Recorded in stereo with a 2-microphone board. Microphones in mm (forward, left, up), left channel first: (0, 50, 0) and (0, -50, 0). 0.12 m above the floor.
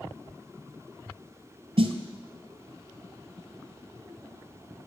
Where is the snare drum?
65° right (ahead or behind), 0.8 m.